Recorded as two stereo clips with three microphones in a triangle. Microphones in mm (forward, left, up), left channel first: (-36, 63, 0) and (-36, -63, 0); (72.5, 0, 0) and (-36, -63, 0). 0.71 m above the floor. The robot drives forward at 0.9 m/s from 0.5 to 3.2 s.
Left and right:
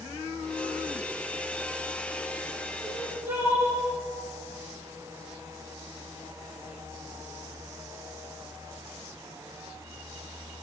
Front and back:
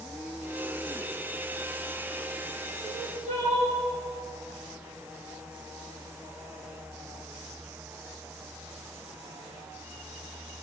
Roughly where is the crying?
Behind.